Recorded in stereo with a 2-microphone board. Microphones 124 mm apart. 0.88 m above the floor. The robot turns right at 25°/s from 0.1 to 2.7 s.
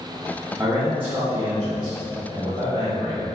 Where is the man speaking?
165° right, 1.4 m; by 3.4 s 115° right, 1.4 m.